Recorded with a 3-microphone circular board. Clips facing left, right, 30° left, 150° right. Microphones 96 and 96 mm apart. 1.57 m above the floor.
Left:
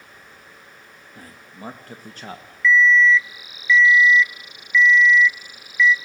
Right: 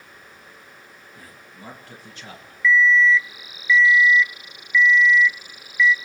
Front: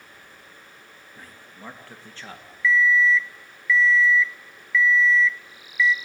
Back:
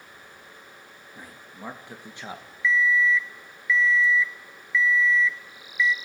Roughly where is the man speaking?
Behind left.